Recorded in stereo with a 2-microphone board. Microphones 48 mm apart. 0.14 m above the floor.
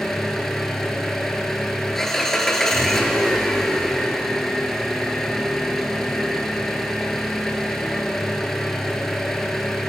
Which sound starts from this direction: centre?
An engine running, at 0.0 s.